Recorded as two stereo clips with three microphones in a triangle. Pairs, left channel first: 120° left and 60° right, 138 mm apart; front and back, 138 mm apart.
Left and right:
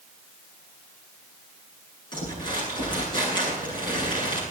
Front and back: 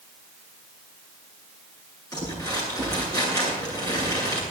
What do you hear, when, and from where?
2.1 s crumpling: 65° left, 9.5 m